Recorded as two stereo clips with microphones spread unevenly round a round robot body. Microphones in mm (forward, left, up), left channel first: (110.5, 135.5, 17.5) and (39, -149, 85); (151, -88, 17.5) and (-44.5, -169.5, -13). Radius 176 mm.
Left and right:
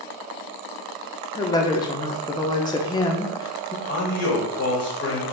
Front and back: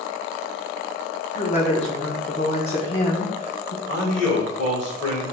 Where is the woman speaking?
65° left, 0.7 m.